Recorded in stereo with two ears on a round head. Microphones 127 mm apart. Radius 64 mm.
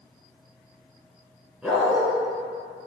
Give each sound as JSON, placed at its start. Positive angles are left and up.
{"t": 1.6, "sound": "a dog barking", "side_deg": -5, "distance_m": 3.0}